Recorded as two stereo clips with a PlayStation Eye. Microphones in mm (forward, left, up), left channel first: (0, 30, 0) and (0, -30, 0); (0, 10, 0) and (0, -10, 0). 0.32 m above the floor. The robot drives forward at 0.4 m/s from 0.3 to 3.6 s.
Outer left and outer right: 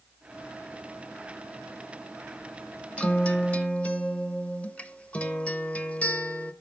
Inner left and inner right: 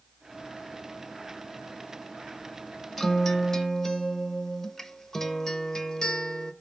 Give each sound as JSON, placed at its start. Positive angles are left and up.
{"t": 3.0, "sound": "a guitar", "side_deg": 20, "distance_m": 0.8}